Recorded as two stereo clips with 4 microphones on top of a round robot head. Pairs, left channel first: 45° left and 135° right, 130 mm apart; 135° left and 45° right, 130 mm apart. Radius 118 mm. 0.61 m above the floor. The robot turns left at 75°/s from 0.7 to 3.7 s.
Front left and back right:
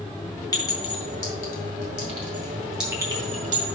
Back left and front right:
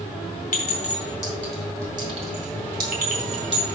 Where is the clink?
110° left, 2 m; by 3.7 s 115° right, 2 m.